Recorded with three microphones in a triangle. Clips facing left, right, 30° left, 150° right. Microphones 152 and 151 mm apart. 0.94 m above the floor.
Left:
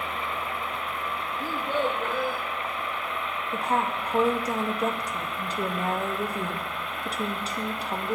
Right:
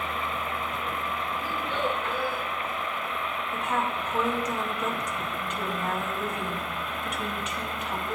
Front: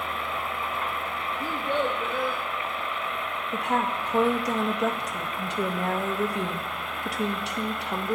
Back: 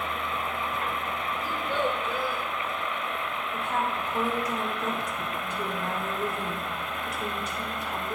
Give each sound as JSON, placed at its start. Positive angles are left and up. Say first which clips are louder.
{"t": 1.4, "sound": "a child speaking", "louder": "left 5 dB, front 2 dB", "azimuth_deg": 55, "distance_m": 0.7}
{"t": 3.5, "sound": "a woman speaking", "louder": "left 3 dB, front 4 dB", "azimuth_deg": 40, "distance_m": 0.8}